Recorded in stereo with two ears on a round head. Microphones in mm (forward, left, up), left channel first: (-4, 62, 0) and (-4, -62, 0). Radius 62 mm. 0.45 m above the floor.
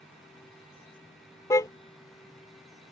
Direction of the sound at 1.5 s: 20° left (ahead or behind).